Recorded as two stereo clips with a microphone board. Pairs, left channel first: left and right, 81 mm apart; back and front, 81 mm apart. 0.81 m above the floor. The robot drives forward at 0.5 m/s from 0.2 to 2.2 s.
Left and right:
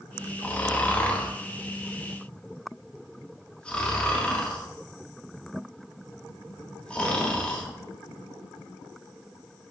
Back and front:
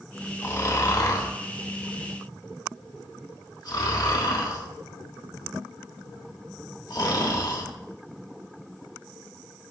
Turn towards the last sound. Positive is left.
turn(degrees=165)